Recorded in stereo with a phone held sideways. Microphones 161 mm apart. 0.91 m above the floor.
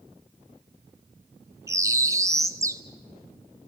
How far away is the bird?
About 1.1 m.